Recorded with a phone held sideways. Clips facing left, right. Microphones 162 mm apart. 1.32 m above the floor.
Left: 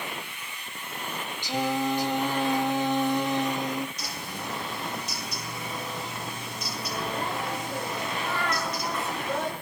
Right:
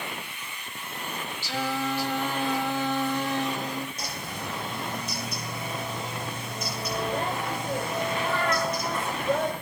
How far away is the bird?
About 3.5 m.